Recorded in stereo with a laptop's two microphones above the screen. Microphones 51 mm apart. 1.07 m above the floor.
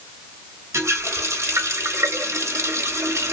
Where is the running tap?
70° right (ahead or behind), 0.9 m.